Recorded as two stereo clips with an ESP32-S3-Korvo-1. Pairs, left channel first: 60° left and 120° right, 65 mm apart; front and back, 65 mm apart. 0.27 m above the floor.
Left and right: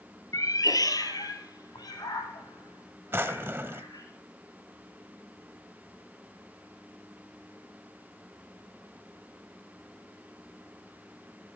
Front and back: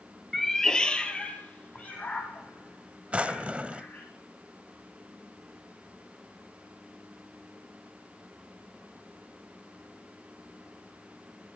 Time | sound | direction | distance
0.3 | a cat meowing | 85° left | 0.9 m
3.1 | a drawer | 125° right | 0.6 m